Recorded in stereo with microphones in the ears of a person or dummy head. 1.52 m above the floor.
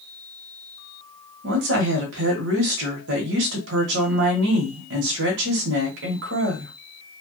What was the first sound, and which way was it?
A woman speaking, 70° right (ahead or behind).